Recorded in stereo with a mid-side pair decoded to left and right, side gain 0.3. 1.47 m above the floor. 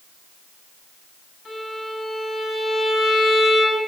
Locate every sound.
1.4 s a violin: 45° left, 7.5 m